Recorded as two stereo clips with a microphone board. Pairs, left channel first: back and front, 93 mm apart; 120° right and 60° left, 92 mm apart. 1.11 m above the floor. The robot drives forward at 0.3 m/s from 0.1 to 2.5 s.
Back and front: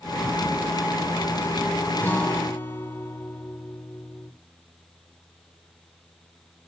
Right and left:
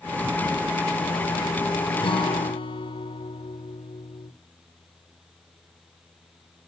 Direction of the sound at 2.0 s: 110° right.